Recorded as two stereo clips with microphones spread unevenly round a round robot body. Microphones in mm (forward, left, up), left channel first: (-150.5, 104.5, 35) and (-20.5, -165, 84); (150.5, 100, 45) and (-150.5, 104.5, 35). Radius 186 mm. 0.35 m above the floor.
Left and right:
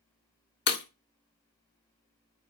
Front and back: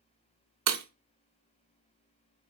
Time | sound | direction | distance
0.7 | breaking glass | 160° left | 0.9 m